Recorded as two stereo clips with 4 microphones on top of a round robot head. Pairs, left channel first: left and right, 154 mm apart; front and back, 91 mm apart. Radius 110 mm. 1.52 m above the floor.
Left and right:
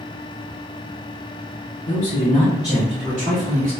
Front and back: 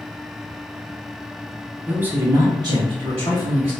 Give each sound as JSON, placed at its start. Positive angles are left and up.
{"t": 1.9, "sound": "a man speaking", "azimuth_deg": 105, "distance_m": 0.8}